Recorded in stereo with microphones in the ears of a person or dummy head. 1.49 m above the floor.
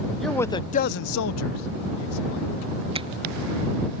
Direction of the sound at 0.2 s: Centre (ahead or behind).